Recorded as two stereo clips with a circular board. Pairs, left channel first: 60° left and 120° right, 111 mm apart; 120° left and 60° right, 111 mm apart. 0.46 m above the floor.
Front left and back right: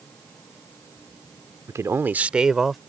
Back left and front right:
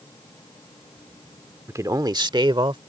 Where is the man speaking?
95° right; by 2.8 s 30° right.